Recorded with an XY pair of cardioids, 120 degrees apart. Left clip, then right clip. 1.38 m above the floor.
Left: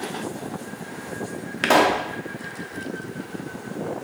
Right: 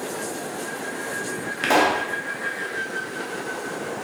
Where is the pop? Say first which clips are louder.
Left 1 dB; 20° left, 0.5 m.